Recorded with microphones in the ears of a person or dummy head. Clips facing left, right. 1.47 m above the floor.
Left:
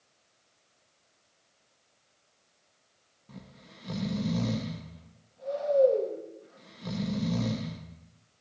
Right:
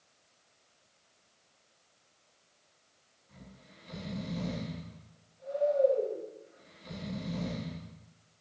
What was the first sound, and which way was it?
Snoring, 80° left.